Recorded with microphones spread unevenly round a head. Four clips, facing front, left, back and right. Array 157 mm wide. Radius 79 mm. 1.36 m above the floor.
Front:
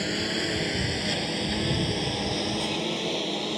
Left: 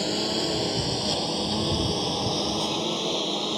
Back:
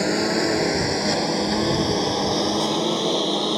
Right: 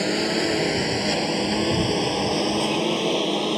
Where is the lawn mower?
140° right; by 3.6 s 130° right.